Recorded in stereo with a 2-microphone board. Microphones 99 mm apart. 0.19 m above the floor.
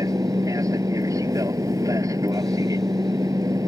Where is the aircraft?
35° right (ahead or behind).